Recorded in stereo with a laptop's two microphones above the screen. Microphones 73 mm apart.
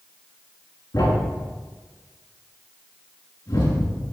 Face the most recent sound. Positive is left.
turn(degrees=70)  # may be behind; listen again after turning